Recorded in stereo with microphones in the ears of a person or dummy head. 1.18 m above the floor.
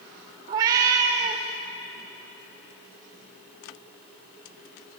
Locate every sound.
0.5 s a cat meowing: 20° right (ahead or behind), 0.6 m